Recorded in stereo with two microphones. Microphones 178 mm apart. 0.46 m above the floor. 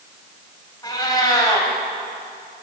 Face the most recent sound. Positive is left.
turn(degrees=25)  # may be behind; listen again after turning